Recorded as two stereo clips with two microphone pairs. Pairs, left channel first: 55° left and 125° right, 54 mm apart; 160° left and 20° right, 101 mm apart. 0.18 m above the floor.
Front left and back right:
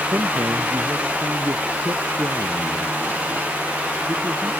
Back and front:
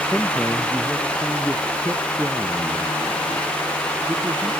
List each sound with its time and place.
0.1 s a man speaking: 110° right; by 4.5 s 80° right